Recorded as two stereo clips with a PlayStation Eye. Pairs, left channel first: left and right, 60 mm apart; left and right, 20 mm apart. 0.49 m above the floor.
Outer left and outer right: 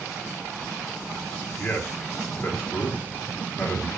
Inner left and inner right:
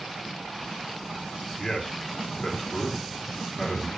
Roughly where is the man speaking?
Left.